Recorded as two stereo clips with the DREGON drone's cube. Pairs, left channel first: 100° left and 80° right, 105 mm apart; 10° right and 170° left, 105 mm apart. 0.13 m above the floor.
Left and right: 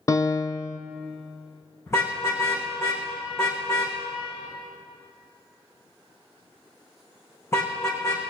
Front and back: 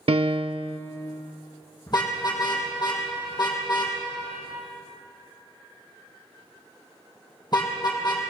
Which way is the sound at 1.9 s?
35° left.